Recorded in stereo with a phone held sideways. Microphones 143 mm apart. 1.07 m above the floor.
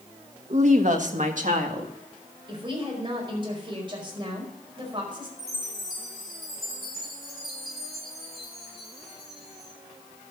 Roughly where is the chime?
Centre.